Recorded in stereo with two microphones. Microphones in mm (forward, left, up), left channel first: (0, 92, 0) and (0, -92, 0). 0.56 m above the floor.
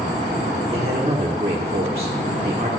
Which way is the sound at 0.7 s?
35° right (ahead or behind).